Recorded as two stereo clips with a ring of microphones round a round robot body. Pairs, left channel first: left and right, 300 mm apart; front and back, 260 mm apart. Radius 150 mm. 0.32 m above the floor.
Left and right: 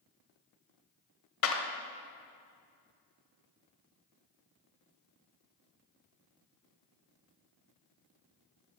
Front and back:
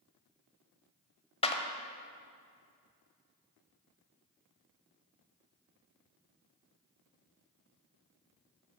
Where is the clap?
65° left, 1.1 m.